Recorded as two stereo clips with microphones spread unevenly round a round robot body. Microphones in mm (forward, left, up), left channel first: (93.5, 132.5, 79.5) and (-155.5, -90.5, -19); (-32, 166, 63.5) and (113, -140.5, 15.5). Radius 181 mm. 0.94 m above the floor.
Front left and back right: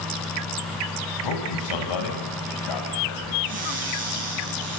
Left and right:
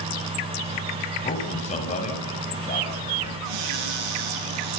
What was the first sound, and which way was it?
A man speaking, 45° left.